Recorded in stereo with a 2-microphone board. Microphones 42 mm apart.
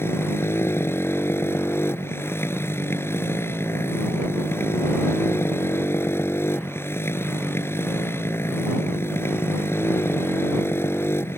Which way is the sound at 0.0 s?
70° left (ahead or behind).